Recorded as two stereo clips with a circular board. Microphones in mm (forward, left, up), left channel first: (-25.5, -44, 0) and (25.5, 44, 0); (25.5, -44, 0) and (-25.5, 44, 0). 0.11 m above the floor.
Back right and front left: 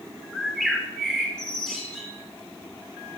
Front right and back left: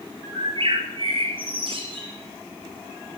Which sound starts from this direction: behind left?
A bird, at 0.3 s.